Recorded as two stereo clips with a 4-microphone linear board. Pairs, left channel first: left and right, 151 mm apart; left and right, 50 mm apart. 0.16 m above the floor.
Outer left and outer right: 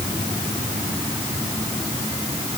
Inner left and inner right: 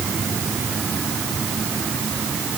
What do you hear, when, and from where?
Only background noise.